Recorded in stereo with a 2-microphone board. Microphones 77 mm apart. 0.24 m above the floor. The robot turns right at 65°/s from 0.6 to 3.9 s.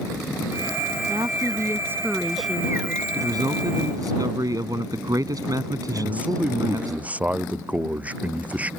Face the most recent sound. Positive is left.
turn(degrees=-20)  # may be behind; listen again after turning